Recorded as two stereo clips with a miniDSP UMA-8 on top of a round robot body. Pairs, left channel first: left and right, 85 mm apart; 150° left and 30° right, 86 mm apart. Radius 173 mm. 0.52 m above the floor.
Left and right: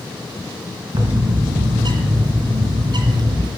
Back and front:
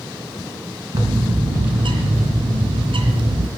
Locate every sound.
0.9 s a bird: 55° right, 2.5 m